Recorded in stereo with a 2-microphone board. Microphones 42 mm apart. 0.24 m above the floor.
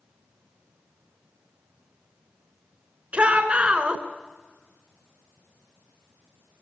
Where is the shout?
30° right (ahead or behind), 2.5 m.